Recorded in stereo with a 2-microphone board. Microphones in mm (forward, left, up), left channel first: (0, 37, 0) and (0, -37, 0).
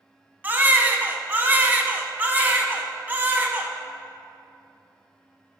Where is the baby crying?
25° right (ahead or behind), 0.8 m.